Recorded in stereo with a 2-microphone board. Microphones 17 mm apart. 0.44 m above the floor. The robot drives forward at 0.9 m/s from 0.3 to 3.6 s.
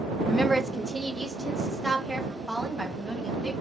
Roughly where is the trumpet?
No trumpet in this recording.